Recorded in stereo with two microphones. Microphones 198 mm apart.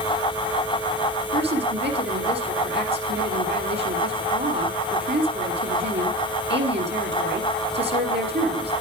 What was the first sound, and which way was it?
A woman speaking, 60° right (ahead or behind).